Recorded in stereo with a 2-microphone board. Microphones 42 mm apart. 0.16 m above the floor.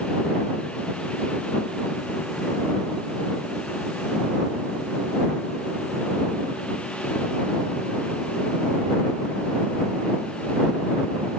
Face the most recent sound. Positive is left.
No sound to turn to.